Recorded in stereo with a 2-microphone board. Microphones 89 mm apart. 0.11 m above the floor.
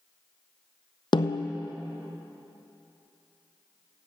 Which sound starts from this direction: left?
A snare drum, at 1.1 s.